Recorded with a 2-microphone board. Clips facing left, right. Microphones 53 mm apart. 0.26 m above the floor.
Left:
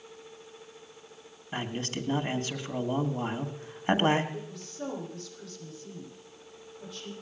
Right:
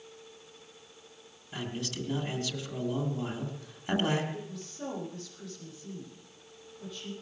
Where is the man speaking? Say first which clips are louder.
Left 3 dB; 40° left (ahead or behind), 2 m.